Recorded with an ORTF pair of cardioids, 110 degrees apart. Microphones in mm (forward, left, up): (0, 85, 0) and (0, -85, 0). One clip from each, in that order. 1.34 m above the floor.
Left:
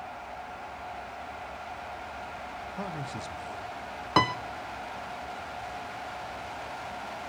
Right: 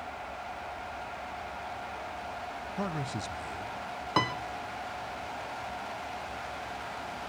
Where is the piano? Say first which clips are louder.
Left 5 dB; 20° left, 0.6 m.